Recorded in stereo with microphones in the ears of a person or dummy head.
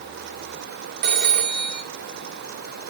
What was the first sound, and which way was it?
A phone ringing, 60° right (ahead or behind).